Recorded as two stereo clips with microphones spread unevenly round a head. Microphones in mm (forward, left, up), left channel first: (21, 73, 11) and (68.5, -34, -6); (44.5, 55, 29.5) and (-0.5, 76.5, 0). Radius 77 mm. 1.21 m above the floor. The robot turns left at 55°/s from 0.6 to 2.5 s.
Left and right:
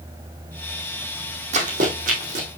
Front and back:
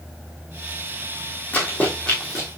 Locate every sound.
1.5 s running footsteps: 55° right, 2.5 m; by 2.5 s 105° right, 2.5 m